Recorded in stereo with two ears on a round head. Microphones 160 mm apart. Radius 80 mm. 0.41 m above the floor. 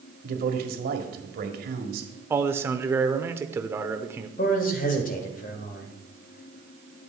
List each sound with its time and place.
0.2 s a man speaking: 55° right (ahead or behind), 1.7 m
2.3 s a man speaking: 15° right (ahead or behind), 0.8 m
4.4 s a man speaking: 50° left (ahead or behind), 1.6 m